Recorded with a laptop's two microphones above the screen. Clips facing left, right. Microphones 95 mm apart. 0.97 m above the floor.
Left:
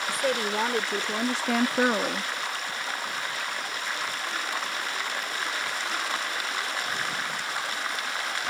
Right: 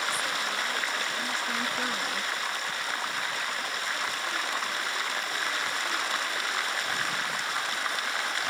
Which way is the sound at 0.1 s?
65° left (ahead or behind).